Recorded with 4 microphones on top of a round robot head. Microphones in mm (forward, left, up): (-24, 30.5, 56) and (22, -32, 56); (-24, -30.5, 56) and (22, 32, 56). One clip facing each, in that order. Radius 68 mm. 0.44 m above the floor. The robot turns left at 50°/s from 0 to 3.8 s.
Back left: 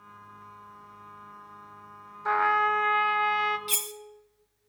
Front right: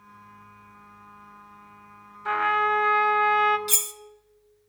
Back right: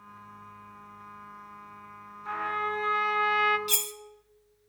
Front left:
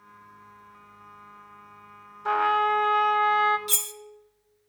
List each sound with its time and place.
2.2 s a trumpet: 60° left, 0.6 m; by 3.6 s 5° right, 0.6 m
3.7 s cutlery clinking: 10° left, 0.6 m; by 3.9 s straight ahead, 0.6 m